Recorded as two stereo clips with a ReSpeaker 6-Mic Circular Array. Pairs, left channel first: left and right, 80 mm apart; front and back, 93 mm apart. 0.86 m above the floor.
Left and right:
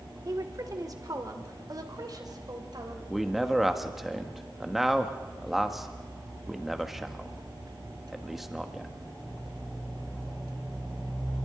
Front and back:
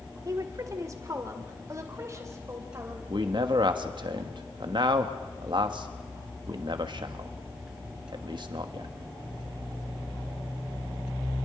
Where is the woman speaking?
130° right, 1.9 m; by 3.0 s 125° right, 3.5 m.